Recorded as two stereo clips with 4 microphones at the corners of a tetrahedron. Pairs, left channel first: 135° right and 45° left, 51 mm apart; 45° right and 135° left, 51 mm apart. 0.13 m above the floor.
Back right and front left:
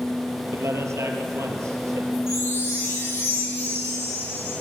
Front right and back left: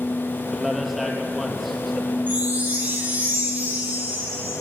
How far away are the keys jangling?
No keys jangling in this recording.